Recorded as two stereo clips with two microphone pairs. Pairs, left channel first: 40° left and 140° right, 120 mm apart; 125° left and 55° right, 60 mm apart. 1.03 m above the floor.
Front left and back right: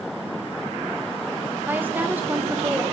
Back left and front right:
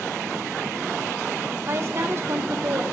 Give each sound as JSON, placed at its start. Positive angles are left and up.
{"t": 1.7, "sound": "a woman speaking", "azimuth_deg": -70, "distance_m": 1.0}